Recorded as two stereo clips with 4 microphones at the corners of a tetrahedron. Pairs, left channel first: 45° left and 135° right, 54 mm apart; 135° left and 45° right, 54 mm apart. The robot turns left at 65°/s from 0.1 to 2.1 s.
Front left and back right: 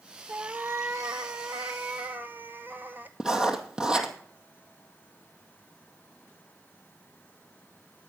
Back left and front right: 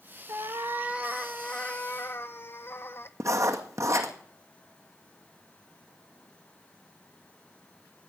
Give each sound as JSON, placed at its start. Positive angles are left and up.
{"t": 0.3, "sound": "a cat meowing", "azimuth_deg": -70, "distance_m": 0.7}
{"t": 3.2, "sound": "writing", "azimuth_deg": -60, "distance_m": 2.0}